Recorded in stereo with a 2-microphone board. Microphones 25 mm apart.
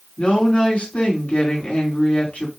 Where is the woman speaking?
60° left (ahead or behind), 2 m.